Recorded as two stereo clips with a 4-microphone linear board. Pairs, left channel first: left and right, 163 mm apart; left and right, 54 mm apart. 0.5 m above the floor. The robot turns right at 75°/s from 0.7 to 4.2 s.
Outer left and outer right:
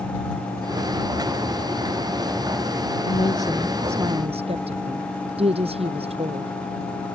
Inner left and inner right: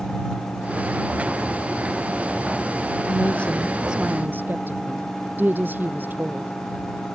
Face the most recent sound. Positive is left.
turn(degrees=-145)